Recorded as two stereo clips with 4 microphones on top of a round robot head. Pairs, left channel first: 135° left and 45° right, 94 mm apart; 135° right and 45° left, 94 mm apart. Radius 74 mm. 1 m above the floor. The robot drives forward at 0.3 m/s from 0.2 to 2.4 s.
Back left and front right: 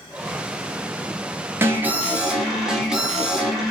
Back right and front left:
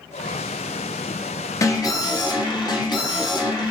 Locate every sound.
1.6 s an alarm: 100° right, 0.7 m; by 3.7 s 125° right, 0.7 m